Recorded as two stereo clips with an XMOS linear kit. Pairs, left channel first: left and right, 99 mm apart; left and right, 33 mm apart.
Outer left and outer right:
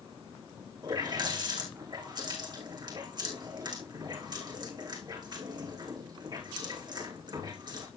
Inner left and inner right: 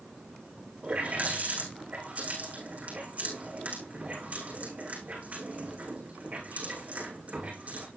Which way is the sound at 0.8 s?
45° right (ahead or behind).